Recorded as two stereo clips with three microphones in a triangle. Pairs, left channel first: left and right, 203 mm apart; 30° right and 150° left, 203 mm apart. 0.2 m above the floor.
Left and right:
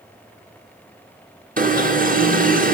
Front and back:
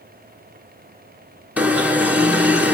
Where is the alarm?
130° right, 4 m.